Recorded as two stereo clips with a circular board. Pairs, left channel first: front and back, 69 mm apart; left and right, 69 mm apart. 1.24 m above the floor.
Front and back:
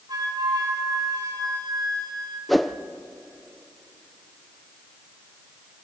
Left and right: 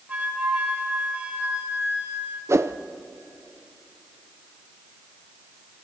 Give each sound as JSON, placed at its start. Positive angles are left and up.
{"t": 0.1, "sound": "a flute", "azimuth_deg": -160, "distance_m": 4.5}
{"t": 2.5, "sound": "a whoosh", "azimuth_deg": -90, "distance_m": 0.7}